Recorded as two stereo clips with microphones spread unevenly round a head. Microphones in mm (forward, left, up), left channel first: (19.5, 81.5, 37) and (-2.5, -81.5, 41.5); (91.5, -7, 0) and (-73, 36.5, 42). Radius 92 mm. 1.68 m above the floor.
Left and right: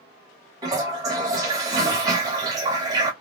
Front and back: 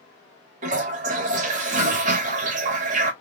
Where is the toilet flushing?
165° right, 0.8 m.